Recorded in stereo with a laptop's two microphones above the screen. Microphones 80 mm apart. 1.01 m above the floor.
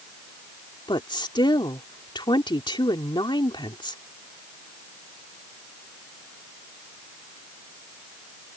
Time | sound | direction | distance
0.9 | a woman speaking | 75° left (ahead or behind) | ?